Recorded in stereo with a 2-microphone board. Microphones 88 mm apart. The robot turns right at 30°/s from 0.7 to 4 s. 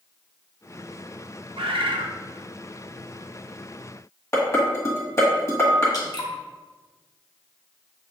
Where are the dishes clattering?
30° left (ahead or behind), 1.3 m.